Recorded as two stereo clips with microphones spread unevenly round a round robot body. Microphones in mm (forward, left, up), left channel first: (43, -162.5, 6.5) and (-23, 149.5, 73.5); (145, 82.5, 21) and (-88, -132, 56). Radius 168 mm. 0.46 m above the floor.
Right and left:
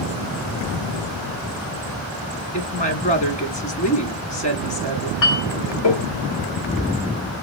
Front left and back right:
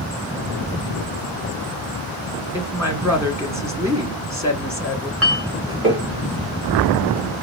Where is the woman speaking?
50° right, 1.6 m.